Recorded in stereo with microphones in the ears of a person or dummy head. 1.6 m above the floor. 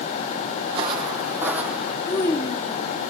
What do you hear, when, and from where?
0.7 s footsteps: 30° right (ahead or behind), 2.5 m; by 2.0 s centre (ahead or behind), 3 m
2.1 s a child speaking: 20° left (ahead or behind), 0.9 m